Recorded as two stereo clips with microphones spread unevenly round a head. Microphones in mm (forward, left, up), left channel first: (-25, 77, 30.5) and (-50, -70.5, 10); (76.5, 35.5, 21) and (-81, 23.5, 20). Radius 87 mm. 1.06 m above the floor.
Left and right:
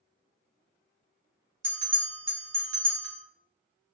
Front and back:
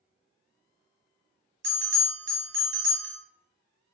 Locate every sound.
1.6 s a bell: 155° right, 1.1 m